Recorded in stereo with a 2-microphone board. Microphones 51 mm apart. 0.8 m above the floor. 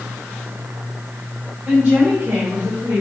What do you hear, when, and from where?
1.6 s a woman speaking: 20° right (ahead or behind), 3.5 m; by 3.0 s 25° right (ahead or behind), 1.7 m